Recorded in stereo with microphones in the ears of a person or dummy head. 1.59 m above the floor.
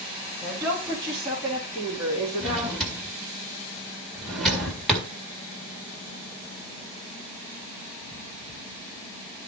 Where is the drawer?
5° right (ahead or behind), 1.9 m.